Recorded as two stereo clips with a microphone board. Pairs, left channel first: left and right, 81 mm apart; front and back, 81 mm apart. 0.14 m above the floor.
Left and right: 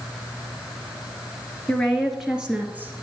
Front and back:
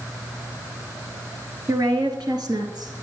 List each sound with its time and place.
1.7 s a woman speaking: 165° left, 2.5 m; by 2.9 s 155° right, 3 m